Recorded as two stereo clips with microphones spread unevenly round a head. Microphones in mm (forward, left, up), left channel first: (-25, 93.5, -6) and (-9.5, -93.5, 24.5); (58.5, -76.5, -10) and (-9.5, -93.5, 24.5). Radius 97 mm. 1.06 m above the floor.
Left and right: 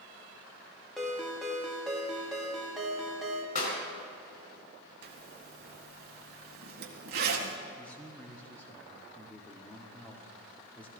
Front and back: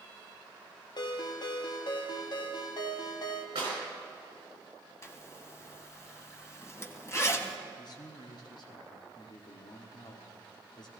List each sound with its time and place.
1.0 s a ringtone: 5° left, 1.2 m
3.5 s a clap: 145° left, 5 m
5.0 s a zipper: 50° right, 1.9 m
7.8 s a man speaking: 10° left, 1.7 m